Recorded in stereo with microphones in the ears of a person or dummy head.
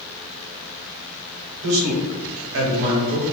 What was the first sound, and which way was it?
A man speaking, 65° right (ahead or behind).